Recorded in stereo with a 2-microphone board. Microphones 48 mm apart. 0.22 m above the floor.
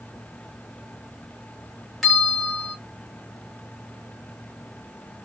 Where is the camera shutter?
I don't hear a camera shutter.